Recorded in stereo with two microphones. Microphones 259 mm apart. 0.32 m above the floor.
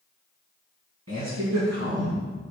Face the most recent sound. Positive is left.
turn(degrees=-70)  # may be behind; listen again after turning